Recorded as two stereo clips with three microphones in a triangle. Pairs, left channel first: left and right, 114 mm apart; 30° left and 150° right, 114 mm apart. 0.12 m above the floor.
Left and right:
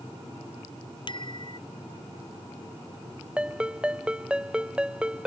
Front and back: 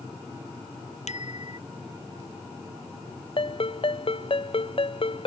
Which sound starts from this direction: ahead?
A ringtone, at 3.4 s.